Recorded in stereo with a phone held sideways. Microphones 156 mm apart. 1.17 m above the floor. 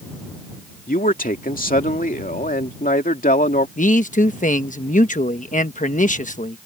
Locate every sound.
0.9 s a man speaking: 65° left (ahead or behind)
3.8 s a man speaking: 55° left (ahead or behind)